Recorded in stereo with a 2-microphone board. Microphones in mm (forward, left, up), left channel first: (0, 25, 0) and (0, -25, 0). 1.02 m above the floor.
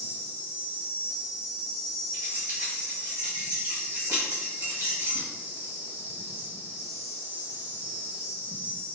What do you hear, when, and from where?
0.0 s an insect: 55° right (ahead or behind), 2.0 m
2.1 s keys jangling: 80° right, 1.5 m